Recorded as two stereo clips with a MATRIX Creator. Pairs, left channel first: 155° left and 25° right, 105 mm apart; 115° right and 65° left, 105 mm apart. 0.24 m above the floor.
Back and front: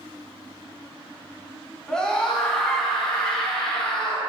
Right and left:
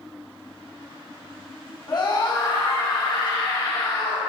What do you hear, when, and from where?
1.9 s a scream: 125° right, 1.8 m